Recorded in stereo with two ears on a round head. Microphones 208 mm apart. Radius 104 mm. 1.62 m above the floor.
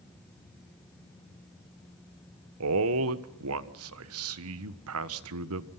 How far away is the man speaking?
About 1.4 m.